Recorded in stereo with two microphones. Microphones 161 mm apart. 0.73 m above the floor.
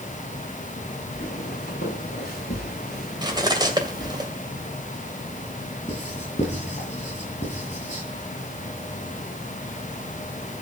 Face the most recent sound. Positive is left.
turn(degrees=50)  # may be behind; listen again after turning